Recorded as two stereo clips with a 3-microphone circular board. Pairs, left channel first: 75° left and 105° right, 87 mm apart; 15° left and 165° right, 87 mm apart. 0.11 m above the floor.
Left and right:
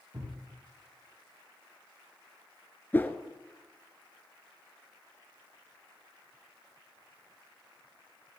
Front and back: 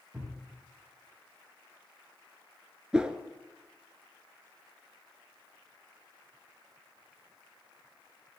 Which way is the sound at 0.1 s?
105° right.